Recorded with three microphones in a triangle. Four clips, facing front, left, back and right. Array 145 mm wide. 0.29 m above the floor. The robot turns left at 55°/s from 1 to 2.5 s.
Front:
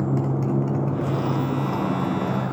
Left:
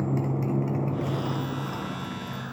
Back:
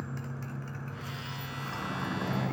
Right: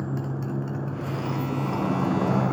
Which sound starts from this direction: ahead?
A motorcycle, at 0.0 s.